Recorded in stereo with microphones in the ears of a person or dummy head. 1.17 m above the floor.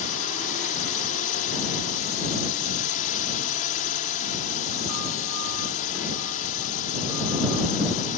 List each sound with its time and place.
0.0 s a drone: 40° left (ahead or behind)